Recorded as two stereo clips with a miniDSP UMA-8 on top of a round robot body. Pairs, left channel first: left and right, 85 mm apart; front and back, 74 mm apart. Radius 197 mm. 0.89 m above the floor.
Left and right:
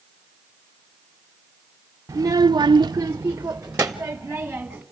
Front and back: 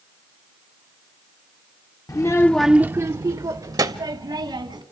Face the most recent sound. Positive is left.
turn(degrees=-175)